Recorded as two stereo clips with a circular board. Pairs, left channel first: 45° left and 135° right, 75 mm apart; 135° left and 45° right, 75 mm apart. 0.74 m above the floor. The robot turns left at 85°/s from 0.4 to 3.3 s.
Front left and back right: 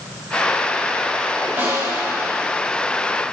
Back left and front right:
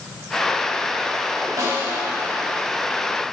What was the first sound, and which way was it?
A snare drum, 80° right.